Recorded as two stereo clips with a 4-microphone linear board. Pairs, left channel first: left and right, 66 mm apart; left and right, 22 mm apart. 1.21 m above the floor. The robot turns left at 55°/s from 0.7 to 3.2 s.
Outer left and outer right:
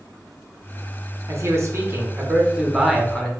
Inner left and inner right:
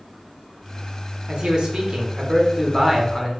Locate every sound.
1.3 s a man speaking: 90° right, 0.8 m; by 3.3 s 165° left, 0.8 m